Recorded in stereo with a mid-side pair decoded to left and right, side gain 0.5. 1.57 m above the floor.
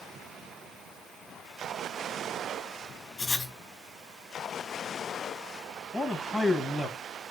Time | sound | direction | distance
3.2 | writing | 40° left | 3 m
5.9 | a man speaking | 25° left | 1.8 m